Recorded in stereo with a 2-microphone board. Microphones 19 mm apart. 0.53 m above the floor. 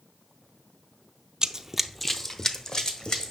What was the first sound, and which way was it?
Running footsteps, 35° right (ahead or behind).